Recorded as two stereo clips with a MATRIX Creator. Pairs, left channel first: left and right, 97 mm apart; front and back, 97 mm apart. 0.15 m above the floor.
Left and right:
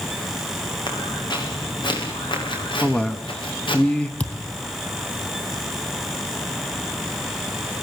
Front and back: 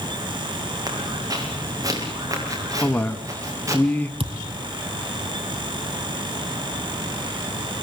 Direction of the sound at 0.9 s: 130° left.